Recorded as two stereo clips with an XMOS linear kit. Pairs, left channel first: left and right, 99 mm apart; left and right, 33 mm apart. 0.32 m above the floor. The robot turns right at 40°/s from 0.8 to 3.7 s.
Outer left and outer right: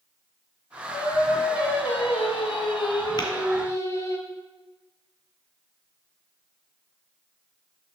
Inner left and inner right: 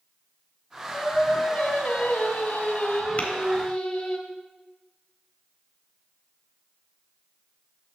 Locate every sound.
0.9 s singing: 35° left, 0.7 m; by 4.2 s 145° left, 0.7 m
3.2 s tapping: 45° left (ahead or behind), 1.0 m